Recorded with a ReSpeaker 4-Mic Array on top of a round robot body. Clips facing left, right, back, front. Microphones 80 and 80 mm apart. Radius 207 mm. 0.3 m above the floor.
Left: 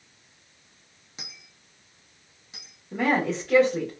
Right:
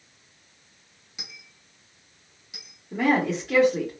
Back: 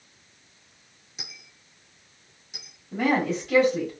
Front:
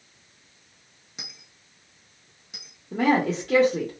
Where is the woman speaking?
5° right, 1.3 m.